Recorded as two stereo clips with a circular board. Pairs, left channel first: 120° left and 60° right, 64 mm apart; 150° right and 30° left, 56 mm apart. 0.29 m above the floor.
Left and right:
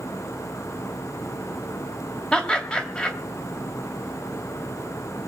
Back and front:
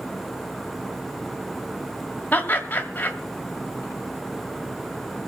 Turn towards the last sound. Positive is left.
turn(degrees=180)